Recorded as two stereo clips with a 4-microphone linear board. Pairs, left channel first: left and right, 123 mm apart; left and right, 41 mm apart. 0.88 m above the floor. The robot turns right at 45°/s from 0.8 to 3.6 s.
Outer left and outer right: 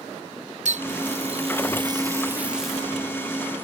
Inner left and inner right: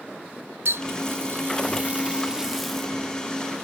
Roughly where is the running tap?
Right.